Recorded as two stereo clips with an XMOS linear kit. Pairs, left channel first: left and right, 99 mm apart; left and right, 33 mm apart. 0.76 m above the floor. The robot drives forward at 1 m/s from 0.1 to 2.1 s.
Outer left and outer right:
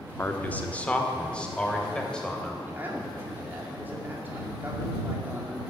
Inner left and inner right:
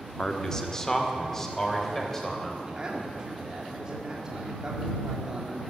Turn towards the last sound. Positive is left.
turn(degrees=-20)  # may be behind; listen again after turning